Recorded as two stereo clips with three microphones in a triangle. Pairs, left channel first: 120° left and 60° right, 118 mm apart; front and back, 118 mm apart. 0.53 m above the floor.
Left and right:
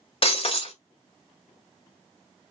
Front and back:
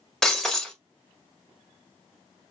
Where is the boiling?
I don't hear boiling.